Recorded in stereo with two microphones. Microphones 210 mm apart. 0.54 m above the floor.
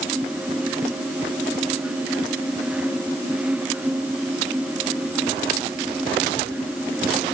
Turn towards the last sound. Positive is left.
No sound to turn to.